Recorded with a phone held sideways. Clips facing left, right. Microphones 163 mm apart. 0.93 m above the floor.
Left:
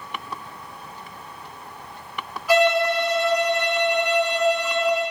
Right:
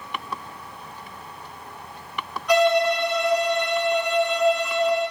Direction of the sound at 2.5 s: 5° left (ahead or behind).